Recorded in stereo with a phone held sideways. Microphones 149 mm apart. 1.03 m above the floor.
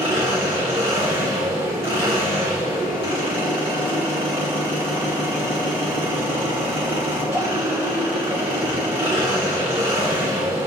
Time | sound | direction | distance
0.0 | an engine running | 40° right (ahead or behind) | 2.5 m